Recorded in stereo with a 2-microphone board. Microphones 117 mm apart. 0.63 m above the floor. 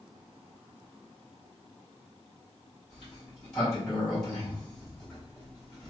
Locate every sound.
2.9 s a sliding door: 5° left (ahead or behind), 1.9 m